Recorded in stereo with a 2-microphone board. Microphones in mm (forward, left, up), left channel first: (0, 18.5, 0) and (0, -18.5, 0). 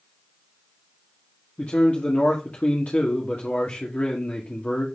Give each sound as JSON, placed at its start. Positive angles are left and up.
{"t": 1.6, "sound": "a man speaking", "side_deg": 40, "distance_m": 1.5}